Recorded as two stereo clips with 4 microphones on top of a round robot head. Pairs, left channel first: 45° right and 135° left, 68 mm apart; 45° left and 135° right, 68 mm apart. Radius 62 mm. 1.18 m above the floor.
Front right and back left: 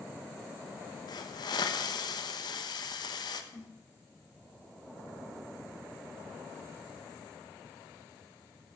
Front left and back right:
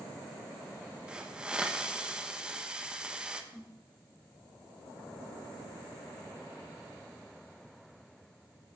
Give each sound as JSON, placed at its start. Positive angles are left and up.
{"t": 1.1, "sound": "a hiss", "azimuth_deg": -60, "distance_m": 1.3}
{"t": 3.5, "sound": "a snare drum", "azimuth_deg": -15, "distance_m": 4.0}